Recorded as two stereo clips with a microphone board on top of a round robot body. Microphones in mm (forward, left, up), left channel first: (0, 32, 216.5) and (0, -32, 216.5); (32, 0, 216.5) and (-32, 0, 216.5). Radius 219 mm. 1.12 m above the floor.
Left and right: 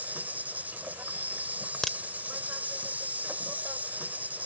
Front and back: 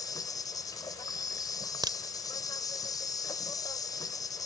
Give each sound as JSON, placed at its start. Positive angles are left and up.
{"t": 0.0, "sound": "an insect", "azimuth_deg": -25}
{"t": 1.8, "sound": "a crack", "azimuth_deg": 175}